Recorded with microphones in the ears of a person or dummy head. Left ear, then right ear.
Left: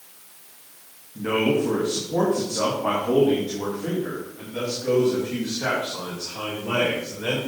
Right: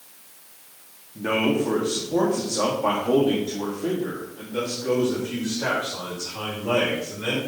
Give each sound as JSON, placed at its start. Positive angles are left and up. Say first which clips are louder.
{"t": 1.1, "sound": "a man speaking", "louder": "left 1 dB", "side_deg": -25, "distance_m": 1.5}